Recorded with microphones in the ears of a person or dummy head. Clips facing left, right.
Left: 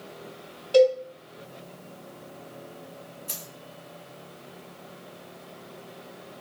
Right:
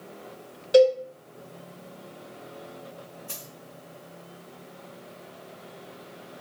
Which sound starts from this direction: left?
A dropped coin, at 3.3 s.